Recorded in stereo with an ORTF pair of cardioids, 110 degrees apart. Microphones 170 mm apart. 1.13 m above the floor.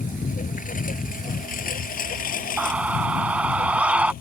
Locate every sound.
0.0 s a lawn mower: 55° left; by 4.2 s 65° left
2.6 s a scream: 5° right